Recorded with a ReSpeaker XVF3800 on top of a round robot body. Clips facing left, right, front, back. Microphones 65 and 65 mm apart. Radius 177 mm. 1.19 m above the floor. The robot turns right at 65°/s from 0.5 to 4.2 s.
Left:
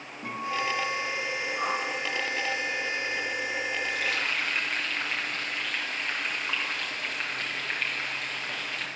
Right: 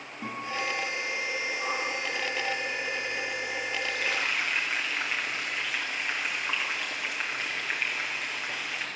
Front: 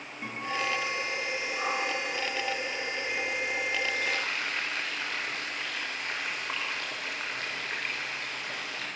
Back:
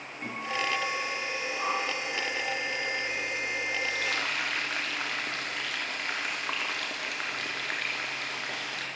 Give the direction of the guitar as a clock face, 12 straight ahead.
3 o'clock.